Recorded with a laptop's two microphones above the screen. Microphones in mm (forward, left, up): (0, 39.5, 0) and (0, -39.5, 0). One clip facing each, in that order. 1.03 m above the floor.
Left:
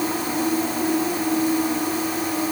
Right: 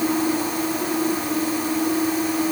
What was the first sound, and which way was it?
Only background noise.